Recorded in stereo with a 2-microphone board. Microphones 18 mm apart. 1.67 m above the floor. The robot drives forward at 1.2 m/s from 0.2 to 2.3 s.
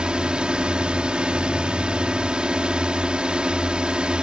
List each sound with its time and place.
0.0 s a drone: 75° right (ahead or behind)